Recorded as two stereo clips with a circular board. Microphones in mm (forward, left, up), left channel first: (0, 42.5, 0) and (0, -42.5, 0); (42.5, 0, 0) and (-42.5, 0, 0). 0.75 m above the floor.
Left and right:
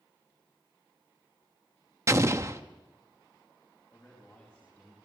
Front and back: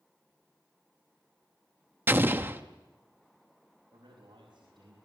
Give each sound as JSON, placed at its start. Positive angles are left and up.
{"t": 2.1, "sound": "an explosion", "azimuth_deg": -125, "distance_m": 1.0}
{"t": 3.9, "sound": "a man speaking", "azimuth_deg": 165, "distance_m": 5.0}